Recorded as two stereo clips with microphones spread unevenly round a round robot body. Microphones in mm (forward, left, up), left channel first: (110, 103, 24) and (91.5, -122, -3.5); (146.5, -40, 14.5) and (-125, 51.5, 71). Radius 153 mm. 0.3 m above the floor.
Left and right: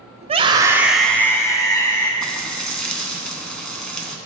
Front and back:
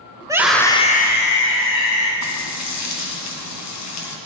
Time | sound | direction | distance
0.2 | a scream | 120° right | 1.3 m
2.2 | frying | straight ahead | 2.5 m